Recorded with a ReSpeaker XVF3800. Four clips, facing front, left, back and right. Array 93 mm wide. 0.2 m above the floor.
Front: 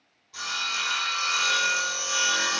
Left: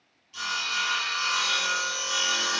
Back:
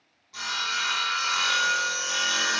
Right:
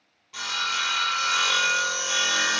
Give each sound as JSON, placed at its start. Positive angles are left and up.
{"t": 0.3, "sound": "sawing", "azimuth_deg": -90, "distance_m": 1.0}